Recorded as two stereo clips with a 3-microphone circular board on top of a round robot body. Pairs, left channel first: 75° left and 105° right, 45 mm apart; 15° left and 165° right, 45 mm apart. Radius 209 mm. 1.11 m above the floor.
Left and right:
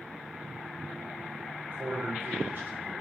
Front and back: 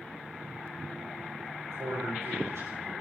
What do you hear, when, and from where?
1.6 s a man speaking: 150° right, 4.5 m